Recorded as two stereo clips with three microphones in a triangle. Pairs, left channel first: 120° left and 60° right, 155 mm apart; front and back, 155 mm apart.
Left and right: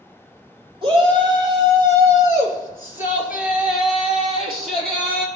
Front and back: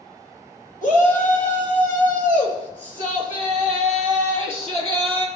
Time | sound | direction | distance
0.8 | a shout | 10° right | 2.5 m